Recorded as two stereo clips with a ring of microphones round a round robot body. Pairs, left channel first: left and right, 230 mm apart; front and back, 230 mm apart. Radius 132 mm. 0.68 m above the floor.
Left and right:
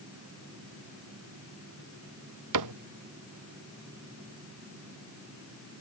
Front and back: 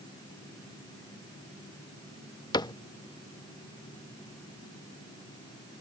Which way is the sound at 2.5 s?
75° right.